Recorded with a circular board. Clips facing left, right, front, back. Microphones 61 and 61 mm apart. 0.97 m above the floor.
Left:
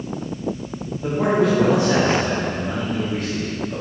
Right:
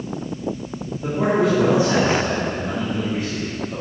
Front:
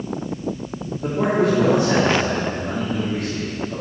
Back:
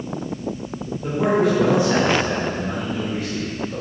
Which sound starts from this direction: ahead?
A man speaking, at 1.0 s.